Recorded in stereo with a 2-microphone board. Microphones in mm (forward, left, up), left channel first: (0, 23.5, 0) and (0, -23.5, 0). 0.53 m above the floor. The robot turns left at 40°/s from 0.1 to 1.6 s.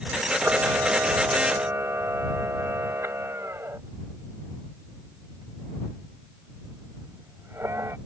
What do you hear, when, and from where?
0.4 s a camera shutter: 45° right (ahead or behind); by 8.0 s 75° right (ahead or behind)